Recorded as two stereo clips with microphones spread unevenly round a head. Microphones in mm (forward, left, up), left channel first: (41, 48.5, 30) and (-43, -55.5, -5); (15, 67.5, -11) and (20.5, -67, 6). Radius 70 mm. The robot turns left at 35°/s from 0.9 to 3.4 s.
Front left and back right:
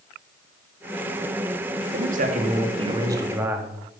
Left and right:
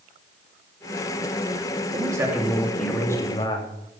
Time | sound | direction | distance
1.9 | a man speaking | 155° right | 2.5 m